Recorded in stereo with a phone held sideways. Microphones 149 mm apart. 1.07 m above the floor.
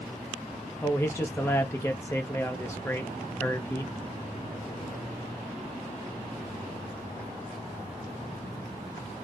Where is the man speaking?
15° left (ahead or behind), 0.5 m.